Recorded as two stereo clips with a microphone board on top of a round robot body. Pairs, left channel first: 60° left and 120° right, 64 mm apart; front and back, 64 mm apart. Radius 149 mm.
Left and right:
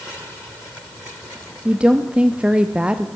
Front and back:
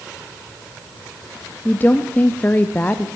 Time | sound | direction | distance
1.6 | a woman speaking | 55° right | 1.0 m